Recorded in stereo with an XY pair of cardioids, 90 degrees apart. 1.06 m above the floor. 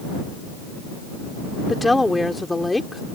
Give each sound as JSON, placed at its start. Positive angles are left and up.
{"t": 1.7, "sound": "a woman speaking", "azimuth_deg": 15}